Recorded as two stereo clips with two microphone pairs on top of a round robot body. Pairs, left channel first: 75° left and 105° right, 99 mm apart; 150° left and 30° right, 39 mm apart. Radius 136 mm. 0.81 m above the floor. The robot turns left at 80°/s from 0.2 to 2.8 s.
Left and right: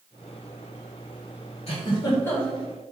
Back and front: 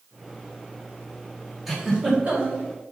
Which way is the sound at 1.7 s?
55° left.